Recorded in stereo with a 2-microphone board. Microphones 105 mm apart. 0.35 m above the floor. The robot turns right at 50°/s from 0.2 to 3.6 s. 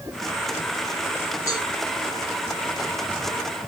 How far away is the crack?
No crack in this recording.